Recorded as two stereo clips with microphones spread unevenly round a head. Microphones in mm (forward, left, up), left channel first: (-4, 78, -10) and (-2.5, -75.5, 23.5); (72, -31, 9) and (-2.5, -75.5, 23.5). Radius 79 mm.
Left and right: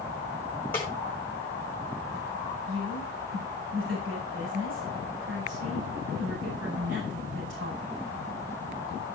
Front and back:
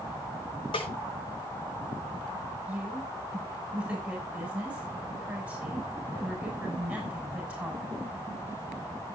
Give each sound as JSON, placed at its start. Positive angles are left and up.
{"t": 0.7, "sound": "a snare drum", "azimuth_deg": 15, "distance_m": 5.5}
{"t": 2.7, "sound": "a woman speaking", "azimuth_deg": -75, "distance_m": 6.0}